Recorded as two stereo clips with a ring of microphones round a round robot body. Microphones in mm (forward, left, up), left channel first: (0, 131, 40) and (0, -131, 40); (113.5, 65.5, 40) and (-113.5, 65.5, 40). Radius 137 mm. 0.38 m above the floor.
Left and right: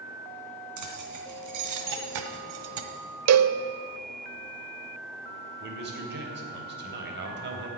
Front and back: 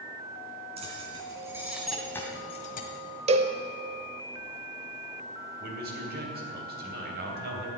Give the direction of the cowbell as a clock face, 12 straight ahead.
4 o'clock.